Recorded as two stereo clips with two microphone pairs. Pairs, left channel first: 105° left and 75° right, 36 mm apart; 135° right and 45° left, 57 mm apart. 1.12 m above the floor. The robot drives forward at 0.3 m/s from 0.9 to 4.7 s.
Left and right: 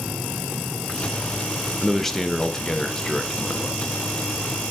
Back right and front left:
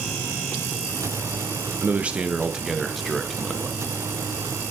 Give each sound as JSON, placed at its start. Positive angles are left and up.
{"t": 1.8, "sound": "a man speaking", "azimuth_deg": 40, "distance_m": 0.6}